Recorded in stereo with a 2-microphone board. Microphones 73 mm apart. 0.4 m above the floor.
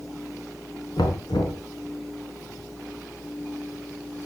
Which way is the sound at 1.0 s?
75° left (ahead or behind).